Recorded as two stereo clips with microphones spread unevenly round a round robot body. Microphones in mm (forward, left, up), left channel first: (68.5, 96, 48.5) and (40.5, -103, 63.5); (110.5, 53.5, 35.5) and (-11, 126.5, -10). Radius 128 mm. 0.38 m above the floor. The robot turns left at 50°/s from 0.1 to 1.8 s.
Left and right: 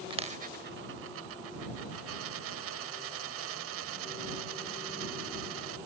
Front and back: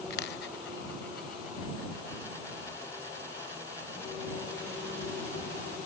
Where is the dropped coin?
30° right; by 5.8 s 115° right.